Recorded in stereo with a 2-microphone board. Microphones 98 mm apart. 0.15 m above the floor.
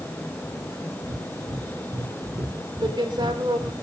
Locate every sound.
1.0 s breathing: 55° right (ahead or behind), 4 m
2.8 s a woman speaking: 55° right (ahead or behind), 4.5 m